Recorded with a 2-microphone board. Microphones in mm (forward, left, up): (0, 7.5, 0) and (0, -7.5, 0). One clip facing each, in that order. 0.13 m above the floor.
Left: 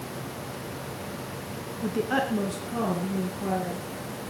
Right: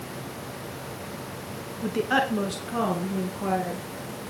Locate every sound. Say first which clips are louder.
1.8 s a woman speaking: right 2 dB; 20° right (ahead or behind), 1.4 m; by 3.9 s 50° right (ahead or behind), 2.5 m